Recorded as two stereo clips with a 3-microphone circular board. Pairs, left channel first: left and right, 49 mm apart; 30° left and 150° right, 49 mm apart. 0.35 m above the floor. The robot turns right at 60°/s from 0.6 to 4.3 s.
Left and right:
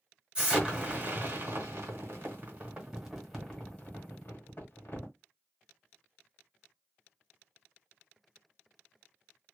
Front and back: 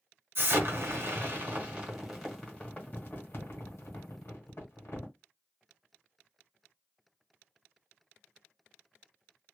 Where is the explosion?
160° right, 1.5 m; by 5.1 s 65° left, 1.5 m.